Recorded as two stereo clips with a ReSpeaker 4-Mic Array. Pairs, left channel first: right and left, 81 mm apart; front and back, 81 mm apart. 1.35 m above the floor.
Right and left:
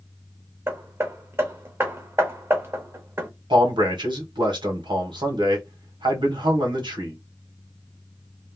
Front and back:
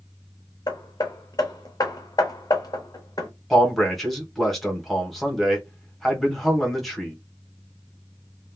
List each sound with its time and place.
0.7 s hammering: 30° left, 0.7 m
3.5 s a man speaking: 85° left, 1.1 m